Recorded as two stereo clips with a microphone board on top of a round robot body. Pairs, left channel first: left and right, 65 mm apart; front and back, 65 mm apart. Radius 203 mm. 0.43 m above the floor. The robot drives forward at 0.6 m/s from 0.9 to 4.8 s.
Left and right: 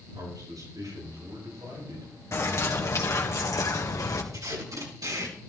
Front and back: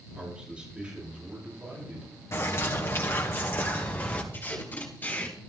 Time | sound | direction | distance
0.1 | a man speaking | 105° right | 8 m
2.3 | a bird | 45° left | 3 m
4.3 | tape being pulled | 60° right | 4.5 m